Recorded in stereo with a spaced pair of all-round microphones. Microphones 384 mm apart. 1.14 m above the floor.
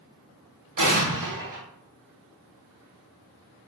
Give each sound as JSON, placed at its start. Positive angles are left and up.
{"t": 0.8, "sound": "an explosion", "side_deg": -55, "distance_m": 0.9}